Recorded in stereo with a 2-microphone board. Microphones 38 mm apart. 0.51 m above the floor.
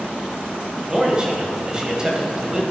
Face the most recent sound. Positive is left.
turn(degrees=-20)  # may be behind; listen again after turning